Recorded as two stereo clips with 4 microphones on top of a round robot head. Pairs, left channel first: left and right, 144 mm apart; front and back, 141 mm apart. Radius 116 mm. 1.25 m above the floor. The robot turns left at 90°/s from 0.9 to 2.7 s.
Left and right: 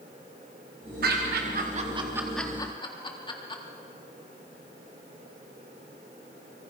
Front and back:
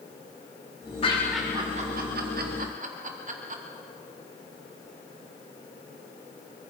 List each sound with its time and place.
1.0 s laughter: 60° right, 3.5 m; by 3.6 s 150° left, 3.5 m